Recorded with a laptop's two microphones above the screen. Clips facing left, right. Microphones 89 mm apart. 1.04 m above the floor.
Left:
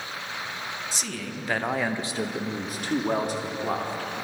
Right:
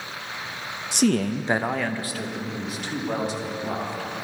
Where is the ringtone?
I don't hear a ringtone.